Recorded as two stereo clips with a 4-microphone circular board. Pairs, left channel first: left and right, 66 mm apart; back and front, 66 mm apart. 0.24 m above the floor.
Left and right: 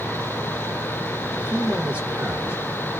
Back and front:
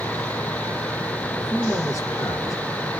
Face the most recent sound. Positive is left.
turn(degrees=-160)